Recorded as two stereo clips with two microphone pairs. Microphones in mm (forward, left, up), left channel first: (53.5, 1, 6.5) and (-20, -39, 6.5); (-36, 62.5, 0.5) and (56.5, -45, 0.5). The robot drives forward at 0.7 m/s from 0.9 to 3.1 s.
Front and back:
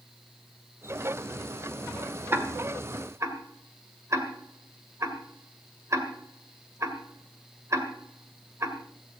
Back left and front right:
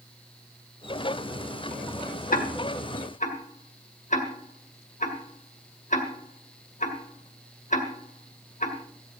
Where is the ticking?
145° left, 1.6 m; by 8.8 s 155° left, 2 m.